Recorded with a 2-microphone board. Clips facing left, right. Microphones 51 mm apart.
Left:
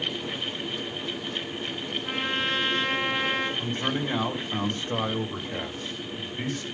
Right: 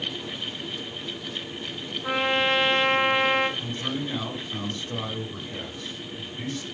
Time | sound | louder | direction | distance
2.0 | a trumpet | right 6 dB | 65° right (ahead or behind) | 4 m
3.6 | a man speaking | left 2 dB | 45° left (ahead or behind) | 2.5 m